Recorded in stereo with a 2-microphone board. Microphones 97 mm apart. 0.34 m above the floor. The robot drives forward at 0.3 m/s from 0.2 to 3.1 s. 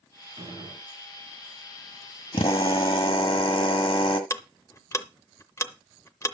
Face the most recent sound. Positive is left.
turn(degrees=30)  # may be behind; listen again after turning